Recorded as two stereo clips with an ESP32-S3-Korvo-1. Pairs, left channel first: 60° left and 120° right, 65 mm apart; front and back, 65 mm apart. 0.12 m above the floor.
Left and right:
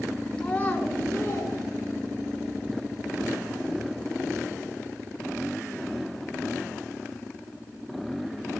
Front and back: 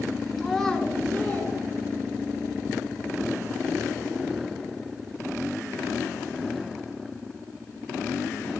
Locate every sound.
0.4 s a child speaking: 100° left, 1.2 m; by 2.4 s 50° left, 2.5 m